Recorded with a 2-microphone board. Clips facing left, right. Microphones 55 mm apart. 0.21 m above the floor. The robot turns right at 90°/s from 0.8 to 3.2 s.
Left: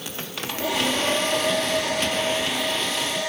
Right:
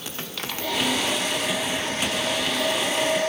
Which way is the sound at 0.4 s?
15° left.